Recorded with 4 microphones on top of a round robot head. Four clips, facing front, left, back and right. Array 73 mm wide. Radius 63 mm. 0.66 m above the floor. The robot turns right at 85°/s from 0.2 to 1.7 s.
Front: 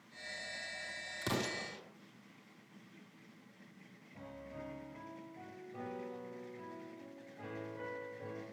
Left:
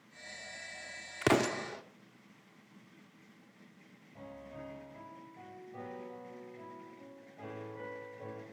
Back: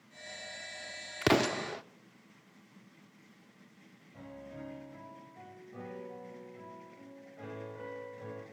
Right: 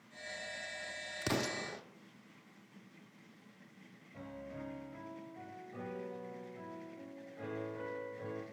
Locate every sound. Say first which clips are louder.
1.2 s an explosion: left 8 dB, back 11 dB; 135° left, 0.5 m; by 1.8 s 175° left, 0.5 m
4.1 s a piano: right 1 dB, back 2 dB; 120° right, 6.5 m